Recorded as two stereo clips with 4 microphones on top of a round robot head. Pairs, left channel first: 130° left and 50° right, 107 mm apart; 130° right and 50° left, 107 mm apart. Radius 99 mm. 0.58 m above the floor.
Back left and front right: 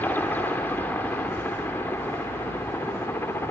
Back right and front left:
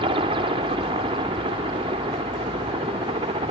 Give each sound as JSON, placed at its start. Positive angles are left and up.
{"t": 0.0, "sound": "a helicopter", "azimuth_deg": 55}